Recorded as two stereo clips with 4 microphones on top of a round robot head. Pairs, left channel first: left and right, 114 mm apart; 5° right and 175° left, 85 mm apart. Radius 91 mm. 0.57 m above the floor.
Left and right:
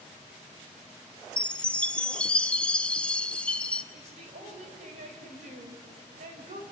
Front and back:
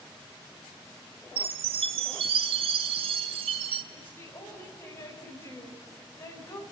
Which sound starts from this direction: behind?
A chime, at 1.4 s.